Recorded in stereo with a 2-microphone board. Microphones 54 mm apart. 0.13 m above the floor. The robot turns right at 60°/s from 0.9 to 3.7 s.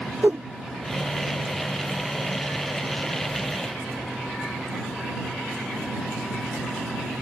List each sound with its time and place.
0.2 s a whoosh: 40° right (ahead or behind)